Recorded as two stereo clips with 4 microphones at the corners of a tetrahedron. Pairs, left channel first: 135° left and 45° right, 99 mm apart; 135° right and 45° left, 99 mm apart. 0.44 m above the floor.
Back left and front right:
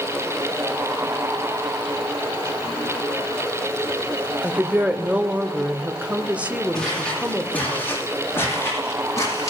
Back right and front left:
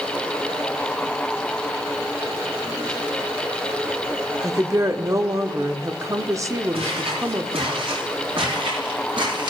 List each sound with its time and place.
4.4 s a woman speaking: 20° left, 0.8 m
6.7 s footsteps: 55° left, 7 m; by 9.5 s 80° left, 7.5 m